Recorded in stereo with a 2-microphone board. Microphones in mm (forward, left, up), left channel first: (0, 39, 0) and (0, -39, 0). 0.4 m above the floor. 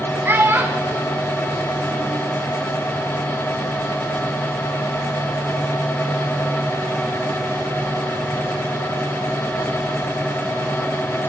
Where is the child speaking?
30° right (ahead or behind), 2.5 m; by 2.2 s 35° right (ahead or behind), 4.5 m.